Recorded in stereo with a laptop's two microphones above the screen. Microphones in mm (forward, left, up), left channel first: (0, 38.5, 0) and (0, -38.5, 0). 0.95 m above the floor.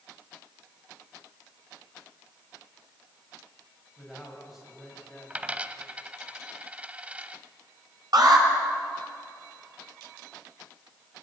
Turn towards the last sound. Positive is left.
turn(degrees=-60)  # may be behind; listen again after turning